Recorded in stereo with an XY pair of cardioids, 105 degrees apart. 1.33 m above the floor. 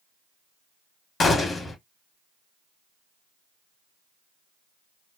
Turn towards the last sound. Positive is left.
turn(degrees=35)